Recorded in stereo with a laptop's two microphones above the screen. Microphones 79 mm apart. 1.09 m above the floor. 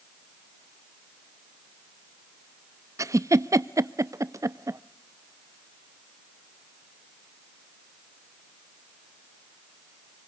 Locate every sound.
3.0 s a giggle: 40° right (ahead or behind), 0.5 m